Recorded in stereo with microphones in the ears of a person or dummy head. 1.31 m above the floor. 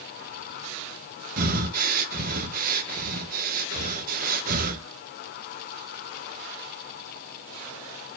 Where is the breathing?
50° right (ahead or behind), 1.0 m.